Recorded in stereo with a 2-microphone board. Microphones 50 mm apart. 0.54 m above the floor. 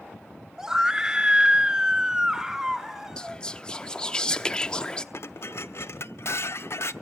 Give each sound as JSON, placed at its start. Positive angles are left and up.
{"t": 0.6, "sound": "a scream", "side_deg": -10, "distance_m": 1.1}
{"t": 3.2, "sound": "whispering", "side_deg": 15, "distance_m": 0.8}
{"t": 5.1, "sound": "dishes clattering", "side_deg": 60, "distance_m": 0.7}